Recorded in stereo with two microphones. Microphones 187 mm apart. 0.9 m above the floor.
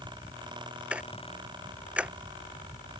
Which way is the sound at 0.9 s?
5° right (ahead or behind).